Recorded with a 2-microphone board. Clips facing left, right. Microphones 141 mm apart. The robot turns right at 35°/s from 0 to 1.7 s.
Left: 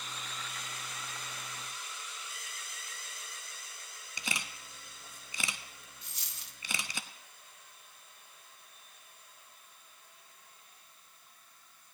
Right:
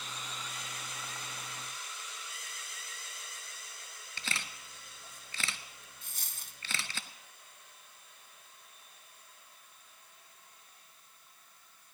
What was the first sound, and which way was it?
A camera shutter, 15° left (ahead or behind).